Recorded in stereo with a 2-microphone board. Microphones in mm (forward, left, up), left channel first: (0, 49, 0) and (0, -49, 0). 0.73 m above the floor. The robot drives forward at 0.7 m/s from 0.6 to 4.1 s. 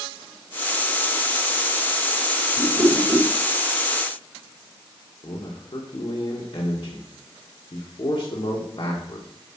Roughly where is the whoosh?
Right.